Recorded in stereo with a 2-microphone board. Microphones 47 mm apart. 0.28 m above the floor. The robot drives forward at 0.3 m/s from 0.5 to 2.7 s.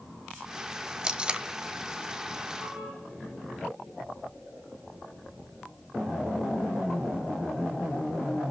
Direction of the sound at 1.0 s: 20° right (ahead or behind).